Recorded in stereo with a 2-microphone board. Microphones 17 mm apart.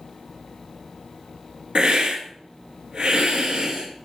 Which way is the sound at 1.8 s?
50° right (ahead or behind).